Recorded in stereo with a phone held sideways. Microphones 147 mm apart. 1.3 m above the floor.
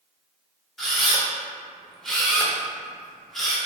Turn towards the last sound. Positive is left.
turn(degrees=0)  # may be behind; listen again after turning